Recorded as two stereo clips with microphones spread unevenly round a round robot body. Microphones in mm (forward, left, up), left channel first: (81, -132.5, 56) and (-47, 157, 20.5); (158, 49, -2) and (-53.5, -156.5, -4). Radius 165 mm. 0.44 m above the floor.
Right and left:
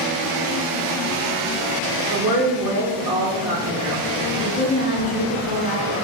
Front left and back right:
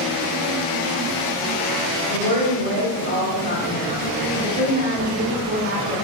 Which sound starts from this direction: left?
A woman speaking, at 2.1 s.